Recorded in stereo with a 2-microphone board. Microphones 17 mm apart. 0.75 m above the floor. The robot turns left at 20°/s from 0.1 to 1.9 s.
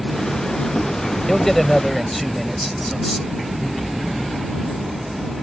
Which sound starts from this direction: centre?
A man speaking, at 1.3 s.